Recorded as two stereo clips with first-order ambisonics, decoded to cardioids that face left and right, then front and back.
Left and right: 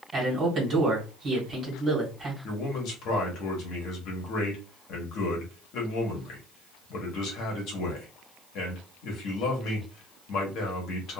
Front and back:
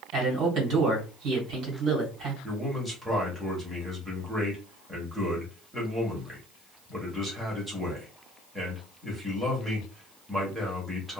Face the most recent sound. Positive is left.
turn(degrees=100)